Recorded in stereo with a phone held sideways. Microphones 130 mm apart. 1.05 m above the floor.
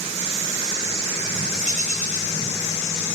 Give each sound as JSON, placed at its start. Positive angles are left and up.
{"t": 1.6, "sound": "a bird", "side_deg": 80, "distance_m": 5.5}